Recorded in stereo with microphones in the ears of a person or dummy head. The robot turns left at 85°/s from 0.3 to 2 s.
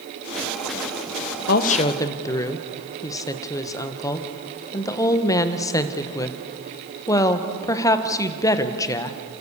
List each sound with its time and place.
1.5 s a woman speaking: 55° left (ahead or behind), 1.4 m; by 9.2 s 15° left (ahead or behind), 1.4 m